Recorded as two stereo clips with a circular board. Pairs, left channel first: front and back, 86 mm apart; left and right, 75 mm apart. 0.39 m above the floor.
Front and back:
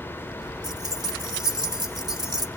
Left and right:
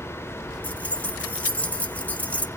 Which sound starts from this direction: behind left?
Keys jangling, at 0.6 s.